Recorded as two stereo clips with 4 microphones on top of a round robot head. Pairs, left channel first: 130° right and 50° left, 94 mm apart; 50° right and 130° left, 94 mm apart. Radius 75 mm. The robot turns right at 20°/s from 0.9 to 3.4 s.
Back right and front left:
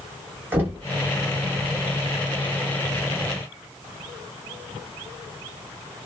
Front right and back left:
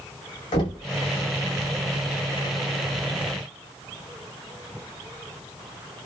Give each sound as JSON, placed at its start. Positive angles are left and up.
{"t": 0.5, "sound": "knocking", "azimuth_deg": -15, "distance_m": 1.2}